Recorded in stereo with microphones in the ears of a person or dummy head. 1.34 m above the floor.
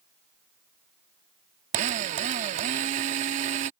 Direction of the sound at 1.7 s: 40° right (ahead or behind).